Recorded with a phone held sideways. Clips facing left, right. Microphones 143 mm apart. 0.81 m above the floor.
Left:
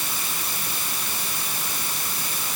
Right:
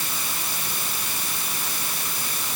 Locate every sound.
Only background noise.